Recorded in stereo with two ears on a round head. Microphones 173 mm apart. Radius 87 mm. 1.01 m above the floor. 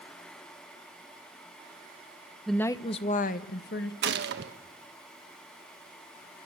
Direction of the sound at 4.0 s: 60° right (ahead or behind).